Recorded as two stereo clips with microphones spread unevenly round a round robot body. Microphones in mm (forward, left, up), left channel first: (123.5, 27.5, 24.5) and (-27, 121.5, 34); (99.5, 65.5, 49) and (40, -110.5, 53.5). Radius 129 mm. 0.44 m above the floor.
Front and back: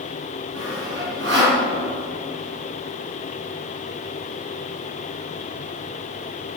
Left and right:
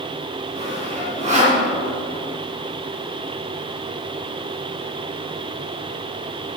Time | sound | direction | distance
0.6 | sawing | 170° right | 4 m